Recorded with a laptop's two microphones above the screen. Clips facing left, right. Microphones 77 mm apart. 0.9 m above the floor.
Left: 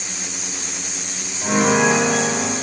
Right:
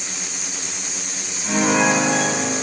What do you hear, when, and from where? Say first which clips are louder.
1.4 s a piano: left 2 dB; 70° left (ahead or behind), 4.5 m